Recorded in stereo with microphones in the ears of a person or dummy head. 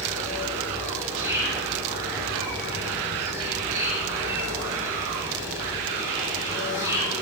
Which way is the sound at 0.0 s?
10° right (ahead or behind).